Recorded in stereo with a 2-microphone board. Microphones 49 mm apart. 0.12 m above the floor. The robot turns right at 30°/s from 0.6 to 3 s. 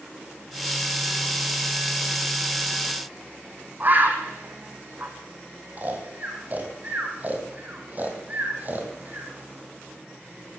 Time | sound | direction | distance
3.8 | a bird | 40° right (ahead or behind) | 2.5 m
5.8 | snoring | 40° right (ahead or behind) | 3 m